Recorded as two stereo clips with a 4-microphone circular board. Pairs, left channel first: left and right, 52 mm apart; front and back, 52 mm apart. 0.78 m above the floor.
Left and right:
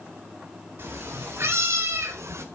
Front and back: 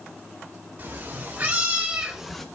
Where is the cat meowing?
130° right, 2 m; by 2.5 s 85° right, 0.7 m.